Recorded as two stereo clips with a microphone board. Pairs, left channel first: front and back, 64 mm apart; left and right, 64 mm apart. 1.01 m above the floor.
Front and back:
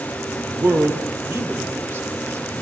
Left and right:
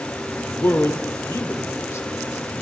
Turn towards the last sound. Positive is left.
turn(degrees=130)